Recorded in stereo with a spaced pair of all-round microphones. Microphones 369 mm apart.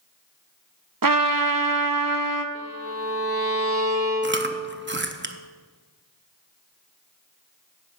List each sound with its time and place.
1.0 s a trumpet: 60° right (ahead or behind), 0.8 m
2.5 s a violin: 25° right (ahead or behind), 2.5 m
4.2 s chewing: 30° right (ahead or behind), 0.6 m